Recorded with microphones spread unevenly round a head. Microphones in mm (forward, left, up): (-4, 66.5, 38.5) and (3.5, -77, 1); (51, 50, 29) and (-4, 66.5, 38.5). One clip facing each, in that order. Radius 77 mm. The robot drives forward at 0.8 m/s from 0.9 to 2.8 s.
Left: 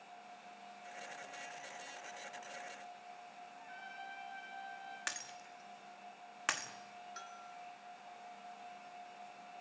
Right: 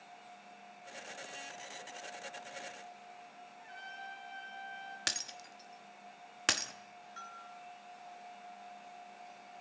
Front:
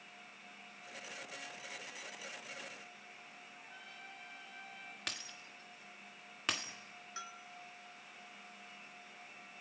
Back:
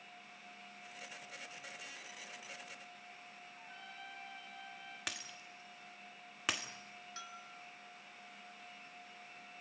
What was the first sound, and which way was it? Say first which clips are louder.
A trumpet: right 2 dB, back 3 dB; 145° right.